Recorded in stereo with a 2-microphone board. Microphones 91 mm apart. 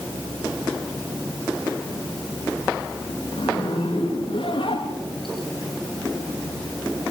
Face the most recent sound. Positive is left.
turn(degrees=65)  # may be behind; listen again after turning